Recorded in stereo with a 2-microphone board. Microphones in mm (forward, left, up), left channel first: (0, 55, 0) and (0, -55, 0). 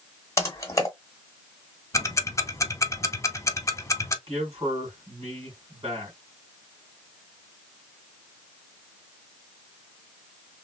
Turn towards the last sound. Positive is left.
turn(degrees=-45)  # may be behind; listen again after turning